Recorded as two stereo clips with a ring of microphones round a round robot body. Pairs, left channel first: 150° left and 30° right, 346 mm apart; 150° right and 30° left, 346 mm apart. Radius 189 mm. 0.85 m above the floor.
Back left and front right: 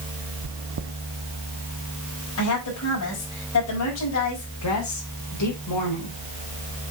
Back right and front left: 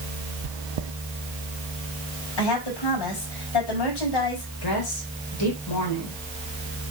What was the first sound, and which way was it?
Chewing, 15° left.